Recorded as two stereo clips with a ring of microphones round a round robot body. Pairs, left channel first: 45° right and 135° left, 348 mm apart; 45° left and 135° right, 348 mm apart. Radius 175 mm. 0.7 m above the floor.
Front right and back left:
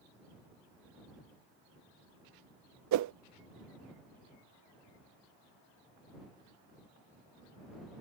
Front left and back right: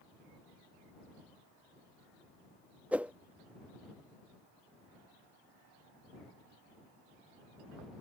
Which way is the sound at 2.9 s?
140° left.